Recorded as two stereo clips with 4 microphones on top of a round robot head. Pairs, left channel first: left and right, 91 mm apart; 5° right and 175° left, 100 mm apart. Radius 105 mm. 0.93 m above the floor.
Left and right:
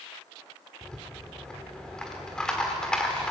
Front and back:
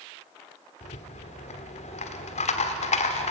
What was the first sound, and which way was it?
A rattle, 5° left.